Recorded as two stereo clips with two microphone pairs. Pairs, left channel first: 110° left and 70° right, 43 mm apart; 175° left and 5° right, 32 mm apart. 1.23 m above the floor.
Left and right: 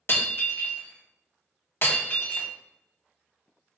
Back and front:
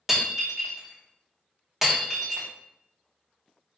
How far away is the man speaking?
No man speaking in this recording.